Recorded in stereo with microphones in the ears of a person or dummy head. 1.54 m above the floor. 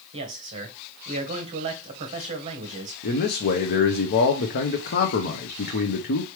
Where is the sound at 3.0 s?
50° left (ahead or behind), 0.7 m.